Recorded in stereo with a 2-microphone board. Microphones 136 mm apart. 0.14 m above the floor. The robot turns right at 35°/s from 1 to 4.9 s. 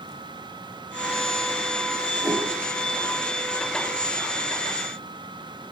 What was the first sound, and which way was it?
A whoosh, 5° right (ahead or behind).